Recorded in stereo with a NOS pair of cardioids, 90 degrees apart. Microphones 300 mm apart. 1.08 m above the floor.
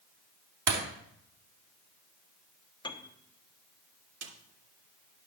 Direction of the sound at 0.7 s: 65° right.